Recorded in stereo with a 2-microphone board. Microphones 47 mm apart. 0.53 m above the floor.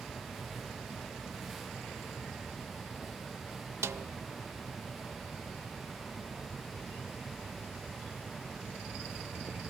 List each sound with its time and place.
3.8 s a snare drum: 75° right (ahead or behind), 0.6 m